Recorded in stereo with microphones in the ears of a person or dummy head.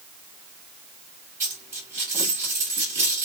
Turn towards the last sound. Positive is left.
turn(degrees=-10)  # may be behind; listen again after turning